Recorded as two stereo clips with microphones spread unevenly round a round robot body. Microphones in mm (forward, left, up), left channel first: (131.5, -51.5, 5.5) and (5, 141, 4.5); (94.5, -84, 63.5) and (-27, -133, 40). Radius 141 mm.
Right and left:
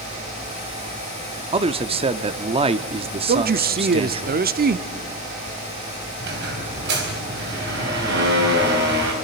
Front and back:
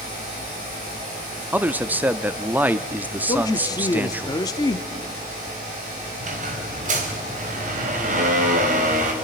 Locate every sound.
1.5 s a man speaking: 160° left, 0.7 m
3.3 s a man speaking: 90° left, 0.8 m
6.2 s a squeak: straight behind, 3 m